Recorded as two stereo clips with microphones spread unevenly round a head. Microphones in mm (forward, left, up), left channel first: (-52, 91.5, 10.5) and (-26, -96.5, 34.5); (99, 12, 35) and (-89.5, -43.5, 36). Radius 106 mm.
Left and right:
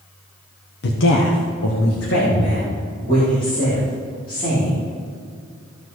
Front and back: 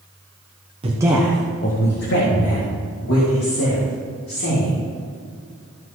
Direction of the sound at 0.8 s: 130° left.